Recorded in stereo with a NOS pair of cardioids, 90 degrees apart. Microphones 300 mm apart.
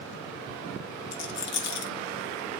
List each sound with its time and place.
1.1 s a rattle: 60° left, 1.1 m